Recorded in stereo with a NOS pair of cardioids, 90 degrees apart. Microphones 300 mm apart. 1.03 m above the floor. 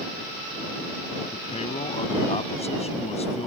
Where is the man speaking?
20° left.